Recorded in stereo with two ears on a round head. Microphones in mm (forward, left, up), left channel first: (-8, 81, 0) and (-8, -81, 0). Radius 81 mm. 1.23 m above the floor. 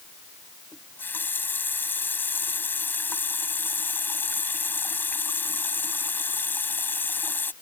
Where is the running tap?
10° left (ahead or behind).